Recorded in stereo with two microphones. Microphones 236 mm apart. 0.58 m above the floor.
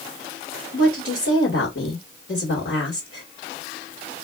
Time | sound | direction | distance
0.7 | a woman speaking | 65° left (ahead or behind) | 1.8 m